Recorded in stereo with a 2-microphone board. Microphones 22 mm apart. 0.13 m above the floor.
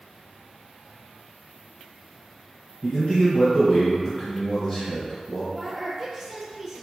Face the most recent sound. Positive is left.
turn(degrees=5)  # may be behind; listen again after turning